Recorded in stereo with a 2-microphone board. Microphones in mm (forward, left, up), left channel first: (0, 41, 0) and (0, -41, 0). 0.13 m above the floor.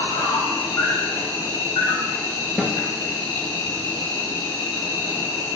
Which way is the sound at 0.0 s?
70° left (ahead or behind).